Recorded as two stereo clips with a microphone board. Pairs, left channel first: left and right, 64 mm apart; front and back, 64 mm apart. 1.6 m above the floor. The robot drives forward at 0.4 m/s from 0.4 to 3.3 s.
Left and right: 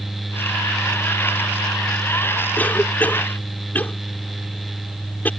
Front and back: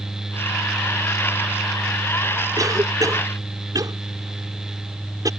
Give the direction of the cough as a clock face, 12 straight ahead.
7 o'clock.